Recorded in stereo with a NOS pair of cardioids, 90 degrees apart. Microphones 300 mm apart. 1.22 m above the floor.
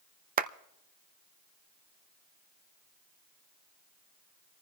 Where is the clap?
30° right, 0.6 m.